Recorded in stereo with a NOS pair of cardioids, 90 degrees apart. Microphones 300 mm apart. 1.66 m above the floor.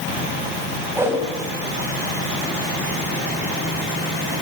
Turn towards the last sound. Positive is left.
turn(degrees=-10)